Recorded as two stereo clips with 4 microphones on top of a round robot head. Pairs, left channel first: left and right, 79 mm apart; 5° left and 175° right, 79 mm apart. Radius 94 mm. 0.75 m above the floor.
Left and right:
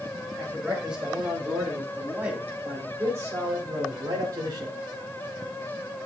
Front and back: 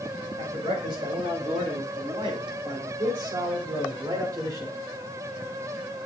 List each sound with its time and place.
0.4 s a man speaking: 175° right, 5 m; by 4.8 s 125° right, 3 m